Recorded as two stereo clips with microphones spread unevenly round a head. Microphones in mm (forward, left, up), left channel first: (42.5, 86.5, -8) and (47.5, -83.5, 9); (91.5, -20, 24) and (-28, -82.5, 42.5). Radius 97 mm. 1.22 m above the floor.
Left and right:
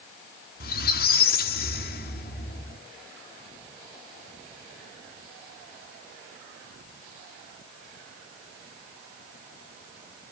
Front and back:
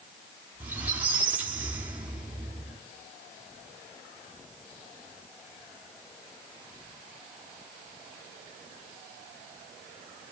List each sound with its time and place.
0.6 s a squeak: 130° left, 1.2 m